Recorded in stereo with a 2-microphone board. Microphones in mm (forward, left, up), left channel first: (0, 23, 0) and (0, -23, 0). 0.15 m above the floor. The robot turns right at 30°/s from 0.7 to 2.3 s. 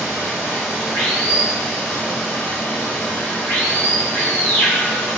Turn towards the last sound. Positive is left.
turn(degrees=35)